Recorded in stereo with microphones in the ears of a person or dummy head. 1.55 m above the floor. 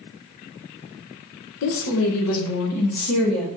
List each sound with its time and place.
1.6 s a woman speaking: 70° left (ahead or behind), 0.6 m; by 3.5 s 75° left (ahead or behind), 1.7 m